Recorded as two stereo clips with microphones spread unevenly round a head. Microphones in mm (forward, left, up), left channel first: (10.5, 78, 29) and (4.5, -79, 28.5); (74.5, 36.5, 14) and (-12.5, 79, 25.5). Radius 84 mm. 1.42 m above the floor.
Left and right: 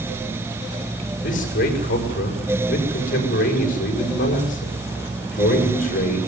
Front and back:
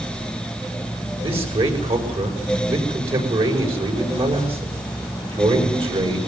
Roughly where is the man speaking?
Behind left.